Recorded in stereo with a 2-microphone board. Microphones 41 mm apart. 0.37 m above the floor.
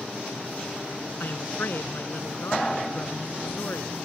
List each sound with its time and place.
1.2 s a woman speaking: 60° left (ahead or behind)